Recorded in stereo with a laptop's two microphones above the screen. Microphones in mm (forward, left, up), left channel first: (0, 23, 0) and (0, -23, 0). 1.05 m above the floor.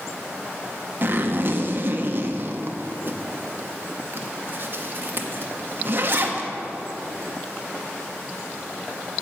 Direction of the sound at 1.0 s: 45° right (ahead or behind).